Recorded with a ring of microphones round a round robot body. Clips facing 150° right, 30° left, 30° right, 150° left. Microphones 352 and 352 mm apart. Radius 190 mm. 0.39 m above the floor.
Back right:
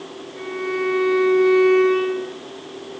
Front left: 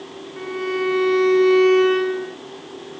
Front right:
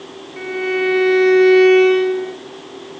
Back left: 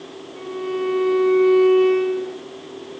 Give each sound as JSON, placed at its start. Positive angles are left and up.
{"t": 0.4, "sound": "a violin", "azimuth_deg": -30, "distance_m": 2.0}